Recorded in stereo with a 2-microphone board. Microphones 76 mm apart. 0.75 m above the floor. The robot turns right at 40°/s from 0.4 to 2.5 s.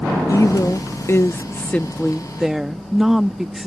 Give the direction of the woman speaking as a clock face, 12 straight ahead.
9 o'clock.